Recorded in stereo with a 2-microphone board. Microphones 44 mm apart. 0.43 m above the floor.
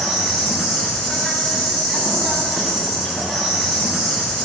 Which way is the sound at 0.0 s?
10° right (ahead or behind).